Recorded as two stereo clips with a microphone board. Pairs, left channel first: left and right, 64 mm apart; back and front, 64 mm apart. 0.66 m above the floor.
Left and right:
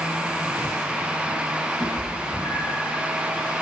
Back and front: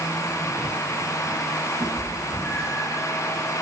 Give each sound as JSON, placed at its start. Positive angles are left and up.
{"t": 1.8, "sound": "a cat meowing", "azimuth_deg": 115, "distance_m": 3.5}